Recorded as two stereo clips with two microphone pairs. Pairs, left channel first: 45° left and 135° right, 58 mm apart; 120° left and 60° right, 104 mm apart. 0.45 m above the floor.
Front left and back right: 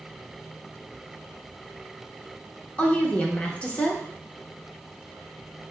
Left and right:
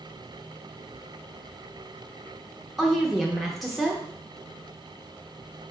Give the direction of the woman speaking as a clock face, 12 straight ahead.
11 o'clock.